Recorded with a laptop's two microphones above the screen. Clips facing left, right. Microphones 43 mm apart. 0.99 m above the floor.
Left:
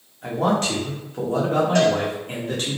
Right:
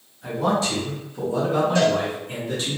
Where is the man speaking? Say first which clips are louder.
Left 1 dB; 50° left (ahead or behind), 0.9 m.